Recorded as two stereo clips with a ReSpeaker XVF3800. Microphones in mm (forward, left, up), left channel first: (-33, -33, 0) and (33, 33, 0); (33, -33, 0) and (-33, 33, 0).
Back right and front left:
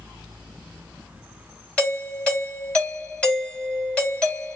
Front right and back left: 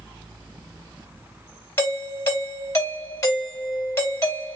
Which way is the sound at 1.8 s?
70° right.